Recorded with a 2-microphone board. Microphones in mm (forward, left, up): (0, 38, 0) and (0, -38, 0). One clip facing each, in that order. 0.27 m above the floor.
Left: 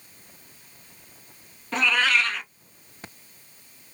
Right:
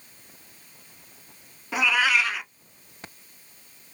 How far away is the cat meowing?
About 0.5 m.